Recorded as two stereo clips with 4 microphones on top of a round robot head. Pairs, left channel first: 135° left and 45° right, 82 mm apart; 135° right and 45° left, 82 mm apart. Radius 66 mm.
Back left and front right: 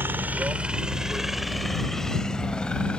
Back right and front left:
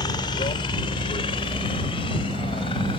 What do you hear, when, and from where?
0.0 s a helicopter: 110° right; by 3.0 s 150° right